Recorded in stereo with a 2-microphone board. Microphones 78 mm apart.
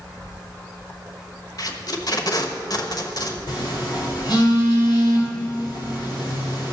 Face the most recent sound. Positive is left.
turn(degrees=65)  # may be behind; listen again after turning